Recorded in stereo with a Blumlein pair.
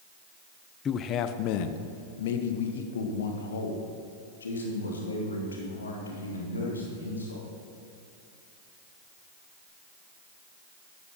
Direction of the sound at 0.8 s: 25° left.